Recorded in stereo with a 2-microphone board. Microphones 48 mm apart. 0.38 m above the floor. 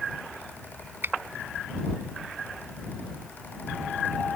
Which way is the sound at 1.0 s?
45° right (ahead or behind).